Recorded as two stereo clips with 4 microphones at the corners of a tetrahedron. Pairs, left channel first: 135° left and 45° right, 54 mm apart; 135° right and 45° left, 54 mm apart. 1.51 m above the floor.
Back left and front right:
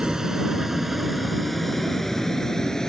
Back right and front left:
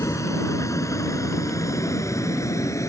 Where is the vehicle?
125° right; by 2.9 s 145° right.